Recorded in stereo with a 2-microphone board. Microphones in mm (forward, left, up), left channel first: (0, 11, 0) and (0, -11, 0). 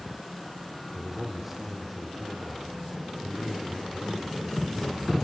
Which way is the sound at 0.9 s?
15° right (ahead or behind).